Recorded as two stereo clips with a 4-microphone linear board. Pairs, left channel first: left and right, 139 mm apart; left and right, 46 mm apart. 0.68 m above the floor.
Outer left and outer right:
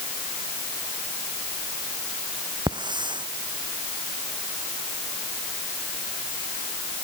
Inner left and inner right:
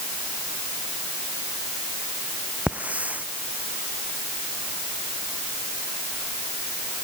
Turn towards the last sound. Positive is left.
turn(degrees=-35)  # may be behind; listen again after turning